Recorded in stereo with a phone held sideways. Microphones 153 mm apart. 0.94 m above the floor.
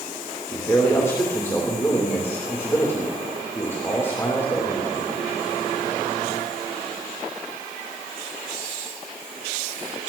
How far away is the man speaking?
About 3 m.